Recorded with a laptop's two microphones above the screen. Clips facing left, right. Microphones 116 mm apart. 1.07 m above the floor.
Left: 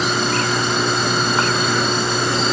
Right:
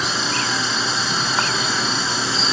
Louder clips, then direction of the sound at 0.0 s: Left 5 dB; 55° left (ahead or behind).